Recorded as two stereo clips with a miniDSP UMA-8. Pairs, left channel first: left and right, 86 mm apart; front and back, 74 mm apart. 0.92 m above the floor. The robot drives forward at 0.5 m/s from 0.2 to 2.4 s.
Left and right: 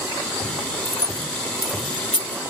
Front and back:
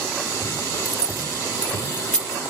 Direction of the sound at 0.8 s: 40° left.